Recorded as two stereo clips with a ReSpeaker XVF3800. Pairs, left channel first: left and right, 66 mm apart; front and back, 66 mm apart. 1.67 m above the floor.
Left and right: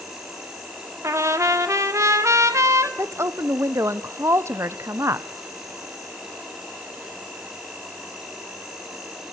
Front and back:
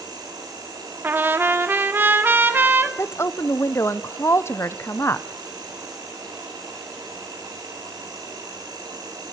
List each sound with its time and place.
0.0 s an insect: 170° right, 9 m
1.0 s a trumpet: 120° right, 2.5 m
3.0 s a woman speaking: 45° right, 1.2 m